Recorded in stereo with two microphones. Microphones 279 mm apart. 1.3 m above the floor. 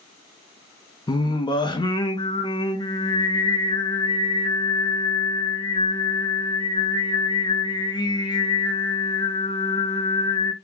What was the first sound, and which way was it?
Singing, 15° left (ahead or behind).